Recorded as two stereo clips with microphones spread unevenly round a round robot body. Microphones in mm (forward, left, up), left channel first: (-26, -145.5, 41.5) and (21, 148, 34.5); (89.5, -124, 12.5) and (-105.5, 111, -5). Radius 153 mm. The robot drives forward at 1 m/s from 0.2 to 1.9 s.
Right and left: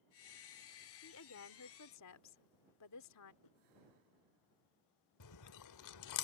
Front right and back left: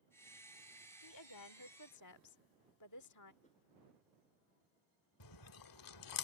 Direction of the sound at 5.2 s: 70° right.